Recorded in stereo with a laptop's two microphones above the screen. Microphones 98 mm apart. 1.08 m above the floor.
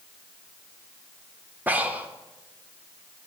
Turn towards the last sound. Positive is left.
turn(degrees=-20)  # may be behind; listen again after turning